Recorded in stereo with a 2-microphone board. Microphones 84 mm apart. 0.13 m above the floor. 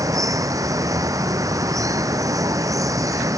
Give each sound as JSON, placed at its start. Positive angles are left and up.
{"t": 0.0, "sound": "running water", "side_deg": -40}